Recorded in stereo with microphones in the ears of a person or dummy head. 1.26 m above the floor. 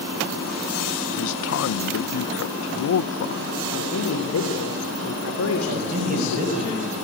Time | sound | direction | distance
1.2 | a man speaking | 75° left (ahead or behind) | 0.5 m
3.7 | a man speaking | 85° left | 3.5 m
5.7 | a man speaking | 40° right (ahead or behind) | 8 m